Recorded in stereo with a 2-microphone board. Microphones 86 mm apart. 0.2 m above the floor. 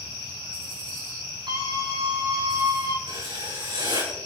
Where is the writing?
75° right (ahead or behind), 8 m.